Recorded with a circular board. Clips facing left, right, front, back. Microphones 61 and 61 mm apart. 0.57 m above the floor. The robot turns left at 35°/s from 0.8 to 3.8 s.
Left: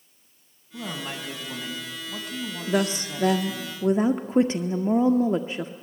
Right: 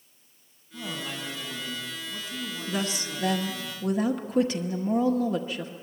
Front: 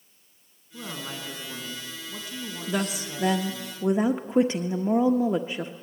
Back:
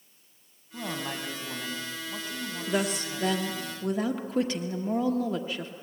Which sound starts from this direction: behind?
A woman speaking, at 0.7 s.